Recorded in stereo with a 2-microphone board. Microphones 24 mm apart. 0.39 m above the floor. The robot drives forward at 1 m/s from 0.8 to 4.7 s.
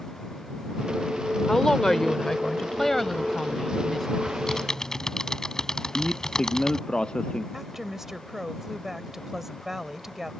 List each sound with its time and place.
1.5 s a woman speaking: 25° left (ahead or behind); by 4.1 s 10° left (ahead or behind)
4.3 s typing on a keyboard: 20° left (ahead or behind); by 6.8 s 25° left (ahead or behind)
5.8 s a man speaking: 40° left (ahead or behind)
7.5 s a woman speaking: 15° right (ahead or behind)